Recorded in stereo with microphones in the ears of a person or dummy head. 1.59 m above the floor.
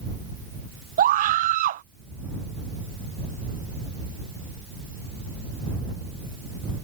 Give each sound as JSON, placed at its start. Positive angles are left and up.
{"t": 1.0, "sound": "a scream", "side_deg": -40}